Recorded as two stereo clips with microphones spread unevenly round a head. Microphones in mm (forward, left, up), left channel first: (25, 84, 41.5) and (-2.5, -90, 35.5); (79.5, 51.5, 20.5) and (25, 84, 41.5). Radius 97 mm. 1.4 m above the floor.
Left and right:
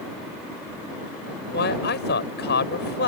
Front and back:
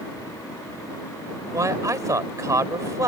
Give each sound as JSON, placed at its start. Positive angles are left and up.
{"t": 1.5, "sound": "a man speaking", "azimuth_deg": 115}